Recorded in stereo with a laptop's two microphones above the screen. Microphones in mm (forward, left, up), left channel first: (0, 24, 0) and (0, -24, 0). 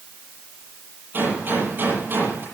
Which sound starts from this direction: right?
A gunshot, at 1.1 s.